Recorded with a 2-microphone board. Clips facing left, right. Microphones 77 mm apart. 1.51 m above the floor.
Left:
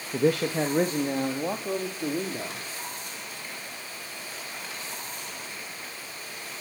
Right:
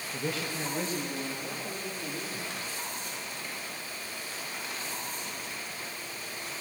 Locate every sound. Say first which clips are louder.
0.1 s a man speaking: left 11 dB; 65° left (ahead or behind), 1.5 m; by 2.6 s 70° left (ahead or behind), 3 m